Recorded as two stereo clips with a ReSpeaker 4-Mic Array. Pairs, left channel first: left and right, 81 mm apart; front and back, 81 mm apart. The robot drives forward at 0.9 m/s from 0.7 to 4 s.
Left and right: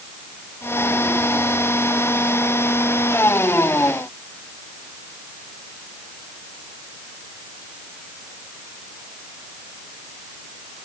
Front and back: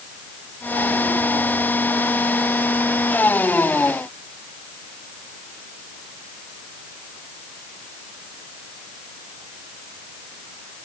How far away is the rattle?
I don't hear a rattle.